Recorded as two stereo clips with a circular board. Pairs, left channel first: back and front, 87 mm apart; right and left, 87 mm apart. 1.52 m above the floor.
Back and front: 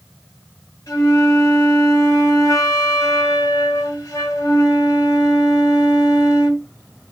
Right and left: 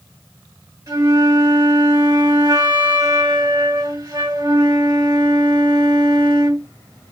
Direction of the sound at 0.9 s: 135° left.